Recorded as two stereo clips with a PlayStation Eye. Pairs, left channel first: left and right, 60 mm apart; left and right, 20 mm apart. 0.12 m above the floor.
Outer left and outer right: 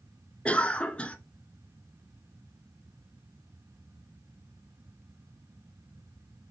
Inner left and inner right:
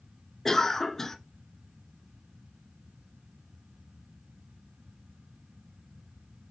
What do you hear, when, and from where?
0.5 s a cough: 20° left (ahead or behind), 1.1 m